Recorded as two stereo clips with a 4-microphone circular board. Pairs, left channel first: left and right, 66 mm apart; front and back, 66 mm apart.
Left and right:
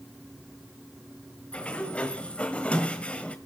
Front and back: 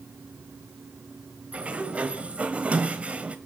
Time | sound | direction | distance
1.5 | a sliding door | 135° left | 1.4 m